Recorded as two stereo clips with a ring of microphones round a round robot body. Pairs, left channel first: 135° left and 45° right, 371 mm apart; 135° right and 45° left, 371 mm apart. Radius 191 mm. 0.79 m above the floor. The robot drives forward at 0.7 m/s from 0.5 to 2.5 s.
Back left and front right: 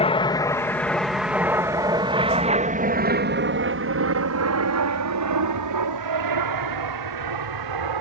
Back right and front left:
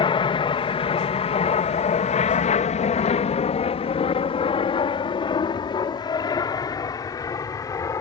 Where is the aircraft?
175° left; by 8.0 s 55° right.